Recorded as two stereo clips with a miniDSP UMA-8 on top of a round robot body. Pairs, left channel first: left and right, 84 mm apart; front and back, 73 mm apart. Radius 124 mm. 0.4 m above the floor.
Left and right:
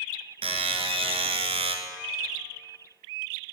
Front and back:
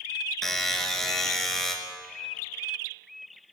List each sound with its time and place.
0.4 s a buzzer: 85° right, 1.6 m